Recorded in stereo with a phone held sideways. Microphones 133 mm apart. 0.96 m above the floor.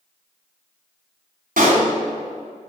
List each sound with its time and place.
1.6 s a pop: 70° right (ahead or behind), 2 m